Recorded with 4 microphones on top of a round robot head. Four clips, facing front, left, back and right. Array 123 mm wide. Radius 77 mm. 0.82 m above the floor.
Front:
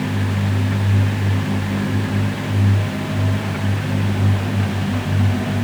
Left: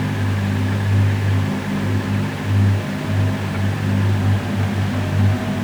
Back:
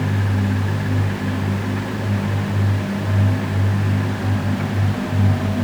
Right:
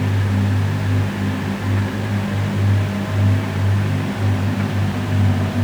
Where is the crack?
I don't hear a crack.